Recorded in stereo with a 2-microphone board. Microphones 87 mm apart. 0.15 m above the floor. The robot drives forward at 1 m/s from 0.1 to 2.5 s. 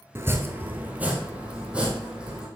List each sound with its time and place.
0.1 s chopping: 30° right (ahead or behind), 1.0 m; by 2.5 s 10° right (ahead or behind), 3 m